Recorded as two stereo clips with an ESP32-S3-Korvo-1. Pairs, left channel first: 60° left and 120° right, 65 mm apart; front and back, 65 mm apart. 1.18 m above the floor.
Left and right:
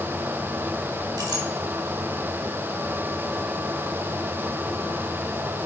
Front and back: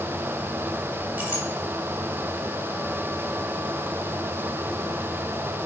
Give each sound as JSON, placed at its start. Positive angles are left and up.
{"t": 1.2, "sound": "a clink", "azimuth_deg": -115, "distance_m": 2.0}